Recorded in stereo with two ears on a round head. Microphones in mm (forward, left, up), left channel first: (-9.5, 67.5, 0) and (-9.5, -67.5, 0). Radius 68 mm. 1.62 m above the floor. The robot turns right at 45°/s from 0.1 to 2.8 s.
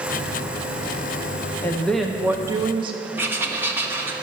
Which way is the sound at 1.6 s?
165° left.